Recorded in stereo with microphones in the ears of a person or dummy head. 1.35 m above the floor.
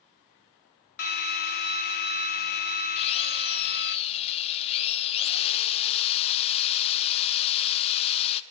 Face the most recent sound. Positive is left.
turn(degrees=30)  # may be behind; listen again after turning